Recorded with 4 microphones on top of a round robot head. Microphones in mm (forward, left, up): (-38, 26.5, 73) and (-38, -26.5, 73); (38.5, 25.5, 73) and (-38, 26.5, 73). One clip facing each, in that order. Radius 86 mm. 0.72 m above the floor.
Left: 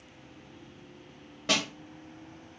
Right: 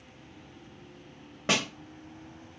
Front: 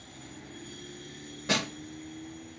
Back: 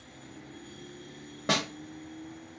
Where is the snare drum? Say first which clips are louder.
Right 1 dB, back 1 dB; 155° right, 0.9 m.